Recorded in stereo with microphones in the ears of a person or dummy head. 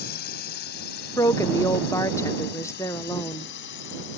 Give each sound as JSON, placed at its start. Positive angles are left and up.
{"t": 0.0, "sound": "a drone", "side_deg": 60}
{"t": 1.2, "sound": "a woman speaking", "side_deg": 10}